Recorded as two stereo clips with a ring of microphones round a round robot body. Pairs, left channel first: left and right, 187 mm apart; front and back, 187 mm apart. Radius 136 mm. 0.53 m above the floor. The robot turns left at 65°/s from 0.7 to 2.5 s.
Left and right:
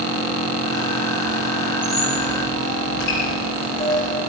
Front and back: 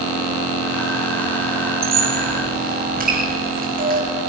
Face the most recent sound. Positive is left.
turn(degrees=140)